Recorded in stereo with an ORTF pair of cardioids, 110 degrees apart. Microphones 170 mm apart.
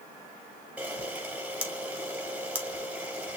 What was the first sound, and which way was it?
A camera shutter, 10° right.